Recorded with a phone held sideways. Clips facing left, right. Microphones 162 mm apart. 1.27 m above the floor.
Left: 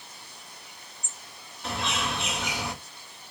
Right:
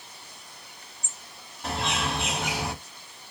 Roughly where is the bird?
Right.